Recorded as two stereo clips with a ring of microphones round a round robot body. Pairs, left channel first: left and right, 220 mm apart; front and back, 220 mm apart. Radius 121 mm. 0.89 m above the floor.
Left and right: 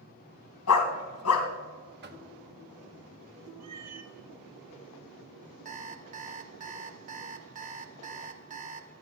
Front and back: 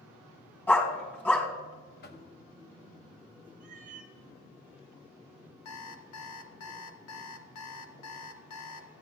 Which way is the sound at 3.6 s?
120° right.